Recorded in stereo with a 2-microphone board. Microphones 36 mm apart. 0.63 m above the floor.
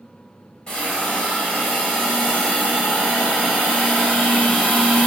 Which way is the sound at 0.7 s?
25° left (ahead or behind).